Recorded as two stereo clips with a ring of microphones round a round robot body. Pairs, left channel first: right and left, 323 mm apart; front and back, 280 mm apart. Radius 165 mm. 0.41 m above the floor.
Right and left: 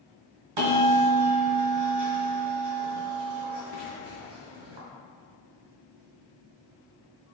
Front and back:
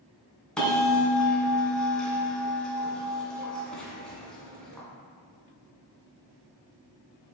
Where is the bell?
90° left, 3 m.